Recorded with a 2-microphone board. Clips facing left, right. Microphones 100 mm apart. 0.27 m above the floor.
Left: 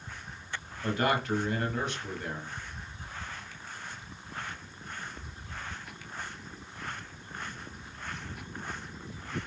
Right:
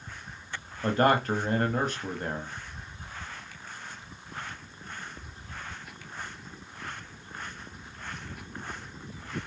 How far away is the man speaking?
About 1.4 m.